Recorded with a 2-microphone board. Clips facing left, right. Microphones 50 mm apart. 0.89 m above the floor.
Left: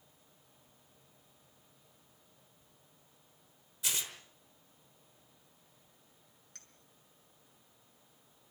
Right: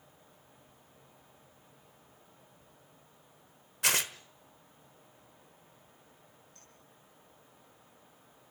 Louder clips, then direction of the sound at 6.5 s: Right 1 dB; 80° left.